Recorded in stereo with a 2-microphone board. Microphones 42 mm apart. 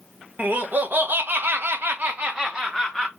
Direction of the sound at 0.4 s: 50° right (ahead or behind).